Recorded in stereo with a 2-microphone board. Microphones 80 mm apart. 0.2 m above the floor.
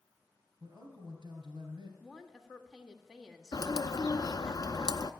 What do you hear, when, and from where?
0.6 s a man speaking: 70° right (ahead or behind), 3.5 m
2.0 s a woman speaking: 5° right (ahead or behind), 1.5 m
3.5 s a bird: 55° left (ahead or behind), 0.5 m